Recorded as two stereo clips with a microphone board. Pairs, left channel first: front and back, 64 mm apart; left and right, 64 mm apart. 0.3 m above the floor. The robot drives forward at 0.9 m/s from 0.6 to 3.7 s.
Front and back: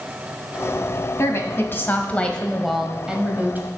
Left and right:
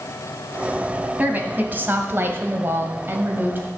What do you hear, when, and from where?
1.2 s a woman speaking: 35° right, 1.9 m; by 3.7 s 135° right, 1.6 m